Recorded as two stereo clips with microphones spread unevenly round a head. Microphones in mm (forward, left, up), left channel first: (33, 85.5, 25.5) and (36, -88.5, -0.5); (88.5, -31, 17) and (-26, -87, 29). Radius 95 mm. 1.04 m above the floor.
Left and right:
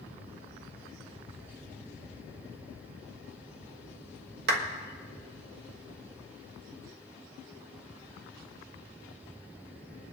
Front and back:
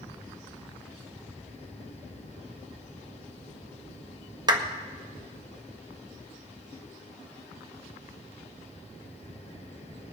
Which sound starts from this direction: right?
A clap, at 4.5 s.